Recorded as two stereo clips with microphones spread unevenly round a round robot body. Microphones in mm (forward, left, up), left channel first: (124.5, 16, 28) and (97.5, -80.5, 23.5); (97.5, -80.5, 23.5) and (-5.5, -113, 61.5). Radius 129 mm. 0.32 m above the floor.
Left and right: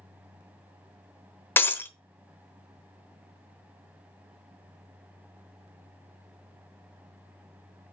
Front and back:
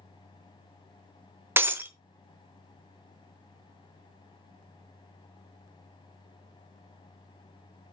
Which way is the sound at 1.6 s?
110° left.